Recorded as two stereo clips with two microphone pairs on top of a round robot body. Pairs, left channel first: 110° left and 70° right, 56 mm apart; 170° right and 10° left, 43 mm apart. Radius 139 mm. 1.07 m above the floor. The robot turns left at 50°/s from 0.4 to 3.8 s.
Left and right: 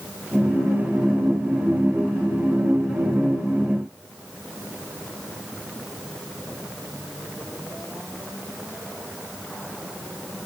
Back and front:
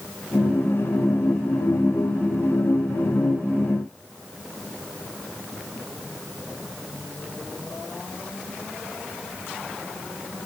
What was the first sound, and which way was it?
Only background noise.